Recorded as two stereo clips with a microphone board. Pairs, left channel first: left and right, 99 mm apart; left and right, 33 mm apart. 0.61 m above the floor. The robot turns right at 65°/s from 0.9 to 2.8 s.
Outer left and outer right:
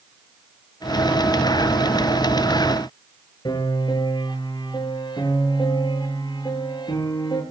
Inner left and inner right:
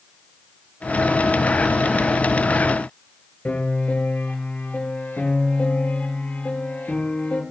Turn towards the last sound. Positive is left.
turn(degrees=45)  # may be behind; listen again after turning